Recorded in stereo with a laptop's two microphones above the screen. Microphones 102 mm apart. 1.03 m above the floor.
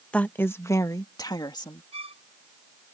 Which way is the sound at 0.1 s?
10° left (ahead or behind).